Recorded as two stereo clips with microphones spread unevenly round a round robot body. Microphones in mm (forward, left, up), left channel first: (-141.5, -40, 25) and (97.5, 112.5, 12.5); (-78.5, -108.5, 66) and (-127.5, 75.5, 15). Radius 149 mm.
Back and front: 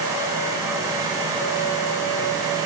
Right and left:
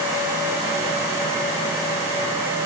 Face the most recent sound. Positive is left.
No sound to turn to.